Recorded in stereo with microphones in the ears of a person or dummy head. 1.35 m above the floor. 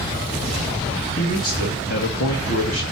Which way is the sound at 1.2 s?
45° left (ahead or behind).